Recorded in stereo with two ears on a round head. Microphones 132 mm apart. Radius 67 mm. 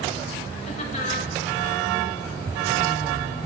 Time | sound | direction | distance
0.7 | laughter | 40° left (ahead or behind) | 2 m